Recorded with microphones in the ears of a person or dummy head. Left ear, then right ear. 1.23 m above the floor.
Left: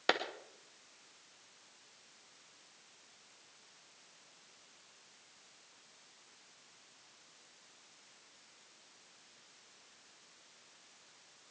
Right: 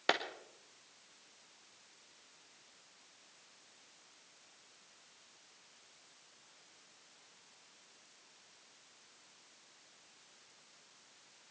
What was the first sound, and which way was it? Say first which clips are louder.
A clap: even; centre (ahead or behind).